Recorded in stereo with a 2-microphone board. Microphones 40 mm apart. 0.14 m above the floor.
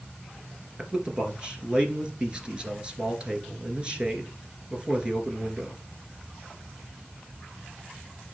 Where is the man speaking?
20° right (ahead or behind), 2 m.